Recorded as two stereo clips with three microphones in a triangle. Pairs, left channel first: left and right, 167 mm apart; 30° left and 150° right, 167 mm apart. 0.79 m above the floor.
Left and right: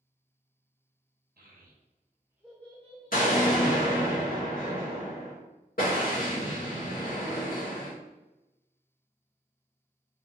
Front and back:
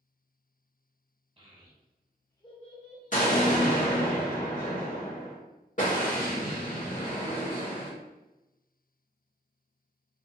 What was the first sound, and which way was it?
A child speaking, 95° right.